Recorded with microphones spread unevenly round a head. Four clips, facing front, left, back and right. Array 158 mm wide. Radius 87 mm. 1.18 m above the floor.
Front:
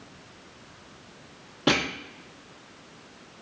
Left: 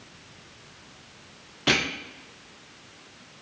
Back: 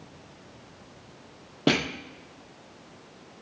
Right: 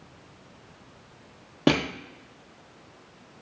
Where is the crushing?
110° right, 0.9 m.